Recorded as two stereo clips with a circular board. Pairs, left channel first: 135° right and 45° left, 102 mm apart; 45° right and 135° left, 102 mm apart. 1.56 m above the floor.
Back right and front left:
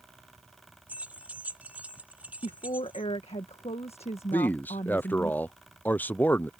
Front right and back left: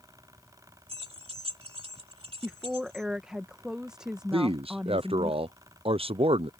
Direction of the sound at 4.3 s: 150° left.